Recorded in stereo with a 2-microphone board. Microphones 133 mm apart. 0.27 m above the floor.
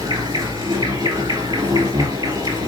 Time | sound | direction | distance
0.0 | an insect | 25° right (ahead or behind) | 2.5 m